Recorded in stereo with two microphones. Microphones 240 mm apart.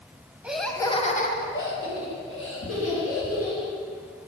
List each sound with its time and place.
0.4 s laughter: 5° right (ahead or behind), 1.4 m; by 3.7 s 75° left (ahead or behind), 4 m